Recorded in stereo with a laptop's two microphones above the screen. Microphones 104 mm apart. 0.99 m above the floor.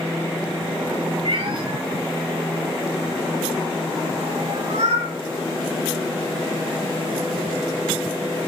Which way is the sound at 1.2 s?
55° right (ahead or behind).